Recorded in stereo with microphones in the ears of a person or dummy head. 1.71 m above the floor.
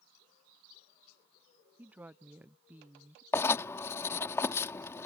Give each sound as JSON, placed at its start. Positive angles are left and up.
{"t": 1.8, "sound": "a woman speaking", "side_deg": -5}
{"t": 3.3, "sound": "writing", "side_deg": 15}